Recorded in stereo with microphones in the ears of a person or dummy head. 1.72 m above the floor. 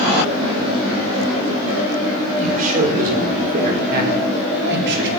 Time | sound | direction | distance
2.4 | a man speaking | 50° right (ahead or behind) | 6 m